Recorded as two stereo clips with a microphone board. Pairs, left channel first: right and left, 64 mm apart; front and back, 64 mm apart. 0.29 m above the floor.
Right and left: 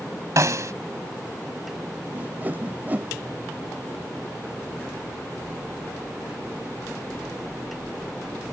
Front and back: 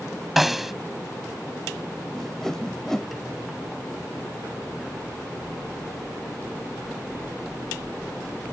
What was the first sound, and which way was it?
A snare drum, 95° left.